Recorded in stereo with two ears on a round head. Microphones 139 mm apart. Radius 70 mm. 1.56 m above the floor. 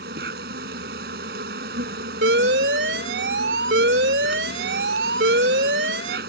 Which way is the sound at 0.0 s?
70° right (ahead or behind).